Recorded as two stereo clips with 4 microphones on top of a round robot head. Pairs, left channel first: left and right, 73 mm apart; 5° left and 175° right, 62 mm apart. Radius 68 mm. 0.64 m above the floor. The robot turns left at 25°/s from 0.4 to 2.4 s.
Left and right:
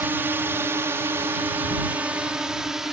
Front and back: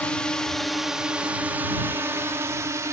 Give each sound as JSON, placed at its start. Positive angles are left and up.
{"t": 0.0, "sound": "a drone", "azimuth_deg": -55}